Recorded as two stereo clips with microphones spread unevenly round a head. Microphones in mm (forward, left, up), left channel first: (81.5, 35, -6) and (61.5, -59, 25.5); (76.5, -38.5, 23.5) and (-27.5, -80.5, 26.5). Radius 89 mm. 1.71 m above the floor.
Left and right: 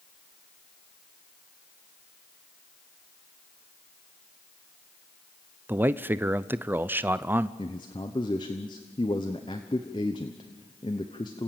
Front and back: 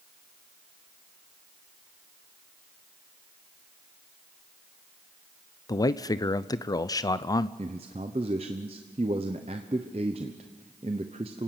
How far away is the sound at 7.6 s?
About 0.8 m.